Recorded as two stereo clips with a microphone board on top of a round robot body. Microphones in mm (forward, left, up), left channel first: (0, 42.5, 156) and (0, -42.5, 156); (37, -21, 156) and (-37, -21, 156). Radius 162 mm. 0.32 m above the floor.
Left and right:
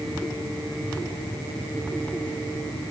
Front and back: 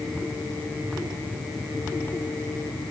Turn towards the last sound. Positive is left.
No sound to turn to.